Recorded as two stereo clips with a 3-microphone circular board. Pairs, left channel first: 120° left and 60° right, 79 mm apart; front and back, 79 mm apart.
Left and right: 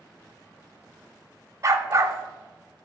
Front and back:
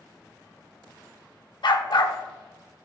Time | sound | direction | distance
1.6 | a dog barking | 10° right | 0.5 m